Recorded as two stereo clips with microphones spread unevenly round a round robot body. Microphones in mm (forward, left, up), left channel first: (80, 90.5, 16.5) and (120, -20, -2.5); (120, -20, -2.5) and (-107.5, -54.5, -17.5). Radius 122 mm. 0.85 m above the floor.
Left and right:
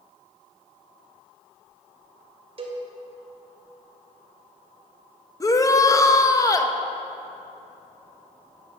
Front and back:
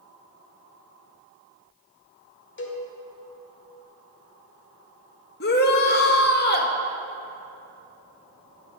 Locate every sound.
2.6 s a cowbell: 30° right, 2 m
5.4 s a shout: 50° left, 1.3 m